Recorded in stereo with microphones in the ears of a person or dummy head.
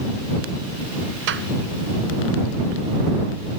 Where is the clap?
70° right (ahead or behind).